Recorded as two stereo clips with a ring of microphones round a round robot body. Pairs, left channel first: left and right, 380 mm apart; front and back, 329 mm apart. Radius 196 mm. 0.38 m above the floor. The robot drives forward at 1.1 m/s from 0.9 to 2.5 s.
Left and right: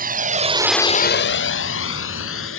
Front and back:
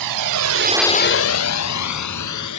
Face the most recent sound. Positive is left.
turn(degrees=30)